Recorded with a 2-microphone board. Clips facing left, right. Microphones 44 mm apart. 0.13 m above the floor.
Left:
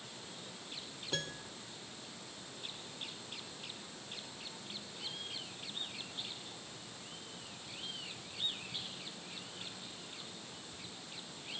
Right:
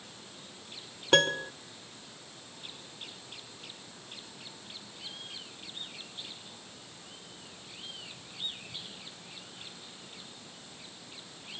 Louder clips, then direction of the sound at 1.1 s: Right 17 dB; 75° right (ahead or behind).